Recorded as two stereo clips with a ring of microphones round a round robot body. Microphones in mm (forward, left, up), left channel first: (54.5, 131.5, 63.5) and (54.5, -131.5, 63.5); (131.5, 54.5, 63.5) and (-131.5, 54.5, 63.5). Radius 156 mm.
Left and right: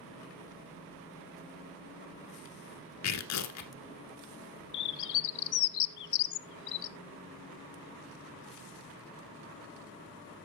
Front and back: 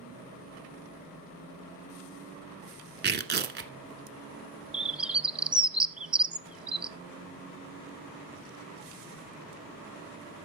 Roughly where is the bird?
Left.